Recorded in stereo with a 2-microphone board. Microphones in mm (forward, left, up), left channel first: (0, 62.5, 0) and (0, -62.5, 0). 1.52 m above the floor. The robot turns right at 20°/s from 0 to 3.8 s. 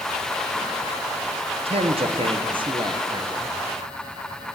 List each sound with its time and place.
1.6 s a man speaking: 75° right, 0.6 m; by 3.5 s 35° right, 0.6 m